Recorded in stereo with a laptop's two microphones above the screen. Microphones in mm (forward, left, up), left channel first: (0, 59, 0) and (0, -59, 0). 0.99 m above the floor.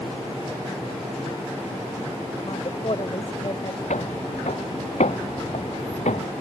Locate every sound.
2.4 s a woman speaking: 50° left (ahead or behind)
3.9 s footsteps: 80° left